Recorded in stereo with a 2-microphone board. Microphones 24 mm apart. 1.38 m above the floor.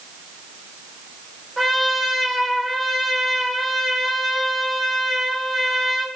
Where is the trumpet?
5° right (ahead or behind), 1.2 m.